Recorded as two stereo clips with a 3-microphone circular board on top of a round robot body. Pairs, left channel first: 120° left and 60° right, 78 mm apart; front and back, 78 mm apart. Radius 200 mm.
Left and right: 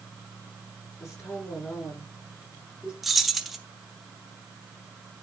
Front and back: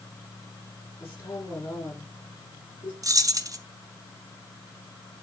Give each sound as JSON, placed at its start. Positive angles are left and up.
{"t": 1.0, "sound": "a woman speaking", "azimuth_deg": 60, "distance_m": 7.0}
{"t": 3.0, "sound": "keys jangling", "azimuth_deg": -150, "distance_m": 1.3}